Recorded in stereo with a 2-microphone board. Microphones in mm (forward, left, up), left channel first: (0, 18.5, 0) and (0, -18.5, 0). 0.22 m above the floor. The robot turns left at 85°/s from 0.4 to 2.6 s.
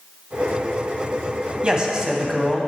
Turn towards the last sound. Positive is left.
turn(degrees=5)  # may be behind; listen again after turning